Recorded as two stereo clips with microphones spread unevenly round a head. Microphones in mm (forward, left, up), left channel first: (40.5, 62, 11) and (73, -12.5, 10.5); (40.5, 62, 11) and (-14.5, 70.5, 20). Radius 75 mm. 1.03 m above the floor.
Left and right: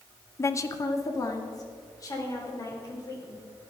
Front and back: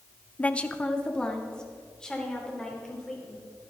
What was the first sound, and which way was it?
A woman speaking, 55° left.